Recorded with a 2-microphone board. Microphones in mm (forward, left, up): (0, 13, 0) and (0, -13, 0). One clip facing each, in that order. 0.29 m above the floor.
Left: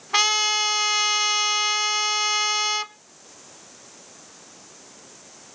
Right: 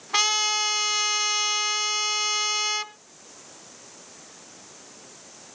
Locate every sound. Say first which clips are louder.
0.1 s a trumpet: left 3 dB; 10° left (ahead or behind), 0.7 m